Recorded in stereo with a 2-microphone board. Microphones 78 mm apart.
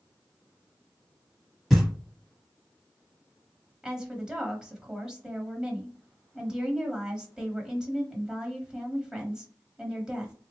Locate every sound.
1.7 s knocking: centre (ahead or behind), 1.2 m
3.8 s a woman speaking: 10° right (ahead or behind), 1.0 m